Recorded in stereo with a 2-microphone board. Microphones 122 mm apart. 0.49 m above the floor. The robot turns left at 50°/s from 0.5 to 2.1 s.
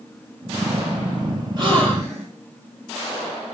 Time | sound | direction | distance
1.6 | a gasp | 35° right (ahead or behind) | 7.5 m